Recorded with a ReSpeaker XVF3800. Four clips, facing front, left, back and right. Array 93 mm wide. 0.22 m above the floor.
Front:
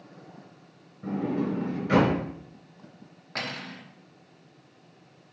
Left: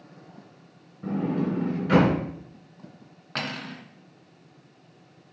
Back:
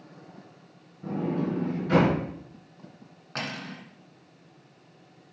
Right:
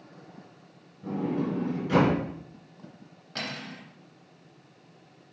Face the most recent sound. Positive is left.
turn(degrees=100)